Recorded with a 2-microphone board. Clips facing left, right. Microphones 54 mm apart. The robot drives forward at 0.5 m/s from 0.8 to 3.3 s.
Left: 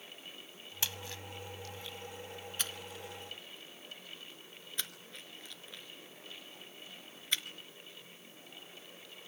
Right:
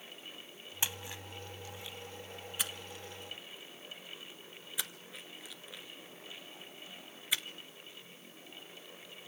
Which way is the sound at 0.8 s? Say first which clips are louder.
Right 1 dB; 20° right (ahead or behind).